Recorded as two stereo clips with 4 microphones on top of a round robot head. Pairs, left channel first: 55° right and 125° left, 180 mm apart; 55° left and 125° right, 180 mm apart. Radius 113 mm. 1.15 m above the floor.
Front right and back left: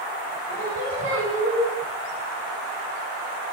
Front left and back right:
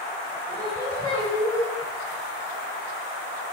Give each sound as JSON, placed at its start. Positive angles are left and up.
{"t": 0.5, "sound": "singing", "azimuth_deg": 130, "distance_m": 4.0}